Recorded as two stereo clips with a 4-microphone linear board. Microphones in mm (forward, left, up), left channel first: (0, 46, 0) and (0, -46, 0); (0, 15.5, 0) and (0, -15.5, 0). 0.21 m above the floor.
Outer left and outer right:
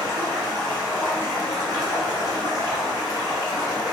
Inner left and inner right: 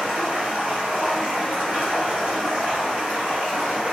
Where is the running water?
45° right (ahead or behind), 1.9 m.